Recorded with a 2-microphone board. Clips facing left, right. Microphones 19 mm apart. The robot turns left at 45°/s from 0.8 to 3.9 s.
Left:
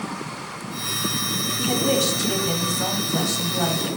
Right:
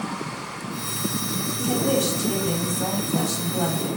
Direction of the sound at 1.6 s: 25° left (ahead or behind).